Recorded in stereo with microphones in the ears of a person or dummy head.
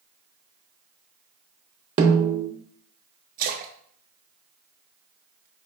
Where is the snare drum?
30° right (ahead or behind), 0.6 m.